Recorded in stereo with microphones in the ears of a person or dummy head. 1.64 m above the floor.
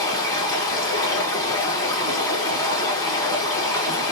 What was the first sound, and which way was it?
Running water, 20° left (ahead or behind).